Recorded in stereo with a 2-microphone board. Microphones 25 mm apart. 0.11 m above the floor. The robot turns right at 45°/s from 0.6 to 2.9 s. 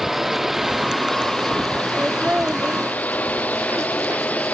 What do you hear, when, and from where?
0.0 s a drone: 10° right (ahead or behind); by 4.5 s 75° left (ahead or behind)
2.0 s laughter: 30° right (ahead or behind); by 4.5 s 70° right (ahead or behind)